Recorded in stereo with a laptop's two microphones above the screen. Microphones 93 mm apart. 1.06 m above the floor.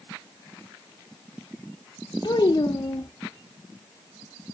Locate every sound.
2.2 s a child speaking: 50° left (ahead or behind), 0.6 m